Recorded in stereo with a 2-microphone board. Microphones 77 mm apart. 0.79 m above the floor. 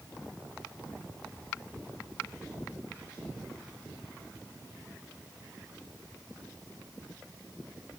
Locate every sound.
Only background noise.